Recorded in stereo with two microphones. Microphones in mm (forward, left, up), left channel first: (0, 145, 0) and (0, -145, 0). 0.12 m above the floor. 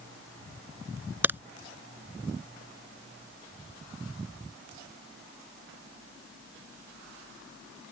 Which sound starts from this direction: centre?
A crack, at 1.2 s.